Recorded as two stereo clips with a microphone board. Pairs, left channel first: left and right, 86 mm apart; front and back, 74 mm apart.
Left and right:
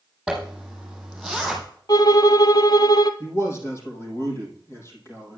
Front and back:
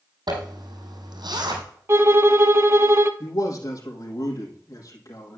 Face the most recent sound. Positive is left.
turn(degrees=35)